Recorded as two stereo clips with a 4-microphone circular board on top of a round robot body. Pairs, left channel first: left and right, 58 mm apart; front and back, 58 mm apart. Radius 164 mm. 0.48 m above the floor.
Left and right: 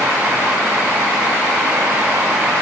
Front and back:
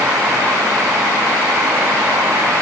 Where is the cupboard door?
No cupboard door in this recording.